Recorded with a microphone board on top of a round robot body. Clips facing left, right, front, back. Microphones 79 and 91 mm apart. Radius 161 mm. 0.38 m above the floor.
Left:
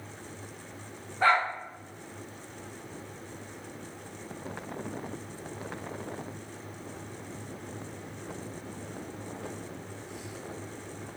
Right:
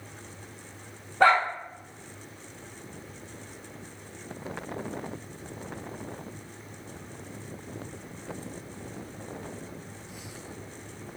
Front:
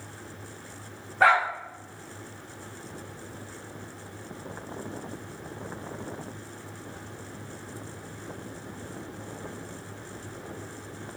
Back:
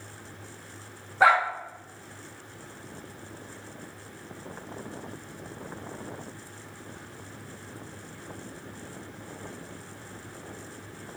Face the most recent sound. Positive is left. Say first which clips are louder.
# right 4 dB, even
turn(degrees=-95)